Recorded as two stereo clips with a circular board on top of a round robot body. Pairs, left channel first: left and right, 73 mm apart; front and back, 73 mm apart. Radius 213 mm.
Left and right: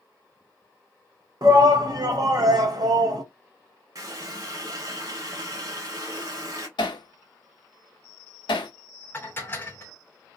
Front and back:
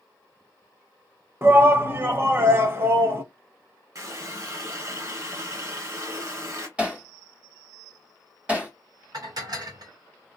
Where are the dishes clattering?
150° left, 1.3 m.